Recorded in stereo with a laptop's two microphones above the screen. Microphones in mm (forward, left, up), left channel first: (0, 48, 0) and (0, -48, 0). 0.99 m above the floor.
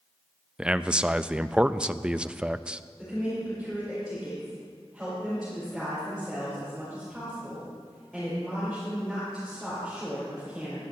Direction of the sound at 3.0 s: Centre (ahead or behind).